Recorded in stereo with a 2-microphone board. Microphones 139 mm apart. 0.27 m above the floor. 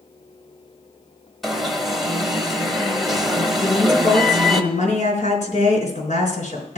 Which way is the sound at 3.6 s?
55° left (ahead or behind).